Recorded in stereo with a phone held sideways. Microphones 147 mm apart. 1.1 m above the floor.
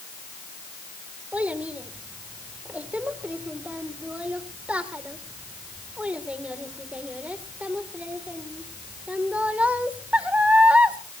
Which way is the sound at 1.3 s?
10° right (ahead or behind).